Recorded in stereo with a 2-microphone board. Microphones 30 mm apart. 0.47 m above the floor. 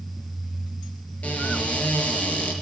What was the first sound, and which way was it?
A cupboard door, 50° left (ahead or behind).